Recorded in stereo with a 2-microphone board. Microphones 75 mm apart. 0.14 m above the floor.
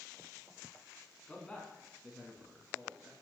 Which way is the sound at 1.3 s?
20° left (ahead or behind).